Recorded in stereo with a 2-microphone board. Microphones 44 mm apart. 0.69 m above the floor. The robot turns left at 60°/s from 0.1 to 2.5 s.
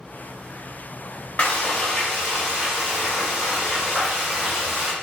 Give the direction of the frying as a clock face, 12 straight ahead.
10 o'clock.